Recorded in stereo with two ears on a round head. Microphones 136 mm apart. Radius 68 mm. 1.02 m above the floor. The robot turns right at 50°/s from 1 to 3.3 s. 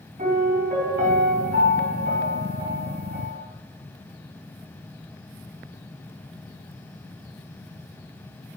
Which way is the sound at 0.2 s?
115° right.